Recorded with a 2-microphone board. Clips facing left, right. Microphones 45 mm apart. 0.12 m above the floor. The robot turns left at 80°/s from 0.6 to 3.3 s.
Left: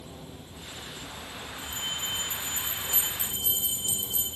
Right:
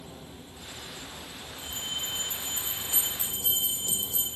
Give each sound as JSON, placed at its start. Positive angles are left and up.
{"t": 1.6, "sound": "a bell", "azimuth_deg": 15, "distance_m": 3.0}